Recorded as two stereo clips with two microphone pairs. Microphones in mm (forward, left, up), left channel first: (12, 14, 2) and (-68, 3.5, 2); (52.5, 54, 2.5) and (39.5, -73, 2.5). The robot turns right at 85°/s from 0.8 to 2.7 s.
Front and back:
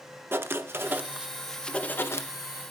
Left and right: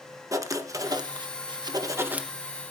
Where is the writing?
140° right, 0.9 m; by 2.3 s 15° right, 0.9 m.